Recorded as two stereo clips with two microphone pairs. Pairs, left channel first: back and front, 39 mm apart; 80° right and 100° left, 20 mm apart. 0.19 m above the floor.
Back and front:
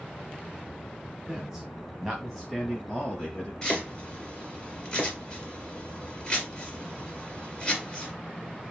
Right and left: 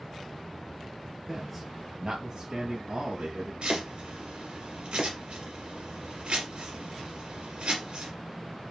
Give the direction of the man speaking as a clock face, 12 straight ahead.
1 o'clock.